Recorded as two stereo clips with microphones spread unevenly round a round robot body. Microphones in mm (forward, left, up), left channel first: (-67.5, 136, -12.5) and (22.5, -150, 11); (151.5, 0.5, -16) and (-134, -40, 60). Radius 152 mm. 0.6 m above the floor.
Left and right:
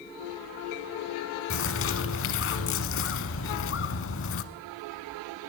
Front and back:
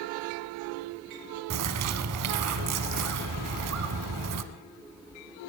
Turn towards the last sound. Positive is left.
turn(degrees=155)